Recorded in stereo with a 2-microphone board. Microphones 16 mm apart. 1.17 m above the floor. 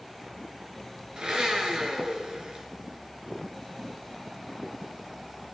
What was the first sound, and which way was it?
A blender, 70° right (ahead or behind).